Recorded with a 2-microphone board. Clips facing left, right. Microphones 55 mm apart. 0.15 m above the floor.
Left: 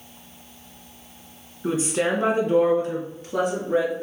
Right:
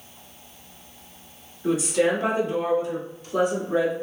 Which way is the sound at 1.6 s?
30° left (ahead or behind).